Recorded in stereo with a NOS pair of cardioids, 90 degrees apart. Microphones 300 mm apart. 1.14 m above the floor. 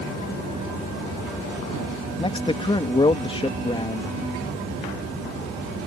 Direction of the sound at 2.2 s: 15° left.